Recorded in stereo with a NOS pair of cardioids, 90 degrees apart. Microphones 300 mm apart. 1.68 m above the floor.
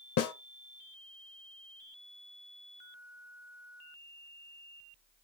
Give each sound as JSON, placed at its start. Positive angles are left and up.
{"t": 0.2, "sound": "a snare drum", "azimuth_deg": 60, "distance_m": 1.1}